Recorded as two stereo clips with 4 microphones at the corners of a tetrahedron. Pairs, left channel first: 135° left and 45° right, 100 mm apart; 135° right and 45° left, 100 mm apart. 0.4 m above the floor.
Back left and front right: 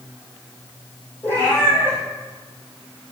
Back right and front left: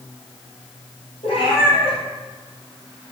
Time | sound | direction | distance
1.2 | a cat meowing | 155° right | 3.5 m